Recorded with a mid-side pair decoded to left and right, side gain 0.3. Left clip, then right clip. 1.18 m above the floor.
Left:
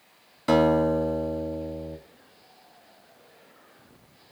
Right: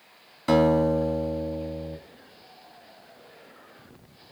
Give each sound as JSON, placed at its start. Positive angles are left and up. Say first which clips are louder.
{"t": 0.5, "sound": "a guitar", "louder": "even", "azimuth_deg": 5, "distance_m": 2.0}